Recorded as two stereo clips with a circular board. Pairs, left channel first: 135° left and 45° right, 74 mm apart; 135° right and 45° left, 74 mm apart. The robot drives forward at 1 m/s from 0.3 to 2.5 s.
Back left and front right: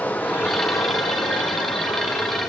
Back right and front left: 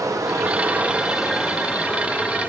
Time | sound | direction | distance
0.0 | running water | 70° left | 1.0 m